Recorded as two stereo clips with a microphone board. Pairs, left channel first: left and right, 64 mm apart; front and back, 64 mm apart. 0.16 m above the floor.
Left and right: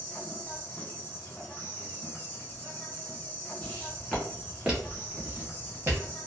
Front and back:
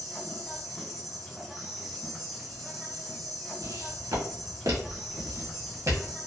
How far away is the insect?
About 1.1 m.